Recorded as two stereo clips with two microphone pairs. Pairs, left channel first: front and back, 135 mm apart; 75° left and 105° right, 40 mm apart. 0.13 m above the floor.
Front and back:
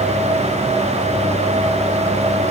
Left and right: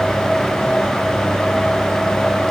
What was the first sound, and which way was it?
Only background noise.